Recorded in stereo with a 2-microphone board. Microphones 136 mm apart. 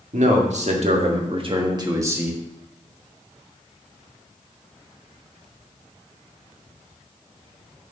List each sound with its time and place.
0.1 s a man speaking: 65° right (ahead or behind), 1.8 m; by 2.4 s 10° right (ahead or behind), 1.1 m